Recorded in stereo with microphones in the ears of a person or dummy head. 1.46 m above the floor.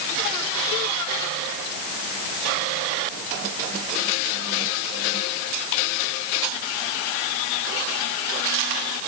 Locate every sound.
Only background noise.